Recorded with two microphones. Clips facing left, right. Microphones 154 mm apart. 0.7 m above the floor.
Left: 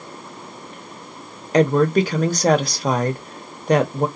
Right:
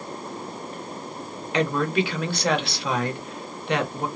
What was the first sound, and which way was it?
A woman speaking, 40° left (ahead or behind).